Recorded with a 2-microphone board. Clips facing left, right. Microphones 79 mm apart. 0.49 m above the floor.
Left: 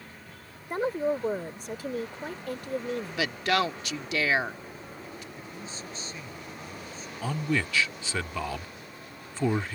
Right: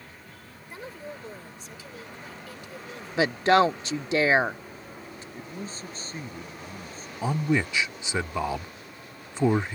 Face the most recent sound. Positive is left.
turn(degrees=-20)  # may be behind; listen again after turning